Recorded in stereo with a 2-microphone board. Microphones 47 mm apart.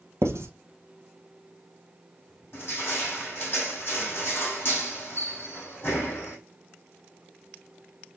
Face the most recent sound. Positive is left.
turn(degrees=40)  # may be behind; listen again after turning